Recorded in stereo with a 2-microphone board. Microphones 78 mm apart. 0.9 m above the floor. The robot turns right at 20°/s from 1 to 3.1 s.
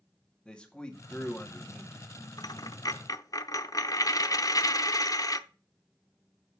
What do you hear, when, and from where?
0.5 s a man speaking: 15° left (ahead or behind), 1.9 m; by 2.0 s 30° left (ahead or behind), 1.9 m
2.4 s a dropped coin: 55° left (ahead or behind), 0.6 m; by 5.4 s 45° left (ahead or behind), 0.6 m